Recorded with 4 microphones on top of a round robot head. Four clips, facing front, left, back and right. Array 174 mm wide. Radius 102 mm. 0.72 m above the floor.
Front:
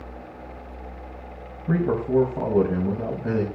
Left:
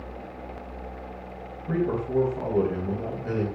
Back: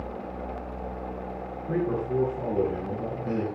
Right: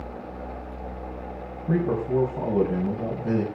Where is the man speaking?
15° right, 5 m.